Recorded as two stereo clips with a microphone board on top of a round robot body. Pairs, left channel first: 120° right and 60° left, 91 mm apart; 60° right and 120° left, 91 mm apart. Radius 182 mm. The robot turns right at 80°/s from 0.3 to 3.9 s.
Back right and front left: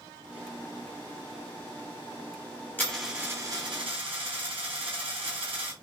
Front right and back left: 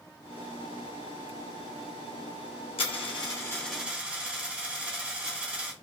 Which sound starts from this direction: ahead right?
A dropped coin, at 2.8 s.